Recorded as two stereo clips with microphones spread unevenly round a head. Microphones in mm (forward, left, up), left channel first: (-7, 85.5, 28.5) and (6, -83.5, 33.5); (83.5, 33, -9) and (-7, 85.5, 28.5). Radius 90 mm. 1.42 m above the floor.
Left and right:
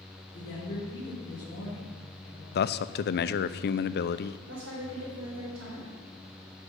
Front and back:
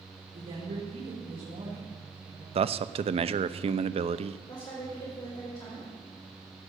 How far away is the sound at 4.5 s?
About 4.5 m.